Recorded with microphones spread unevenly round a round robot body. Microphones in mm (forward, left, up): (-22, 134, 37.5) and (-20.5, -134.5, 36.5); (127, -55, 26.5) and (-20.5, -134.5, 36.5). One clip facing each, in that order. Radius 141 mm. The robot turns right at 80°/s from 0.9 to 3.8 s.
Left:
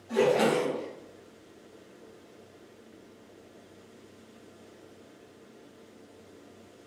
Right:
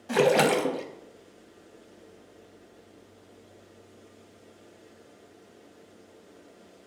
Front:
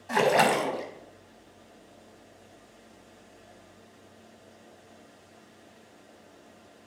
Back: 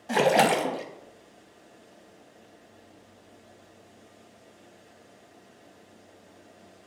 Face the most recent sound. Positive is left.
turn(degrees=145)